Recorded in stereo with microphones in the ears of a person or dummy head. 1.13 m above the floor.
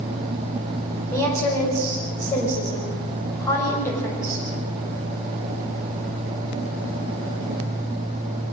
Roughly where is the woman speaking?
Centre.